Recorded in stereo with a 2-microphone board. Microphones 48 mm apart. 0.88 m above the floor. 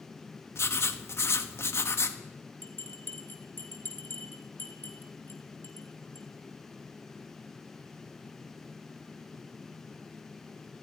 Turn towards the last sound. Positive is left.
turn(degrees=50)  # may be behind; listen again after turning